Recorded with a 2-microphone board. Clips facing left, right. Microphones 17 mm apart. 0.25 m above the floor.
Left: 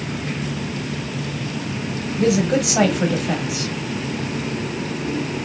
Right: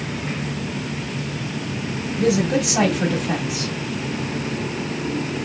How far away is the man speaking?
About 1.5 m.